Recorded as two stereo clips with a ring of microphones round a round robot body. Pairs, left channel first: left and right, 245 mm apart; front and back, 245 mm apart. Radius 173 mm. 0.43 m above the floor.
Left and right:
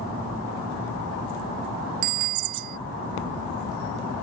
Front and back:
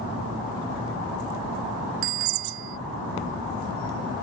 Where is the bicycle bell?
125° right.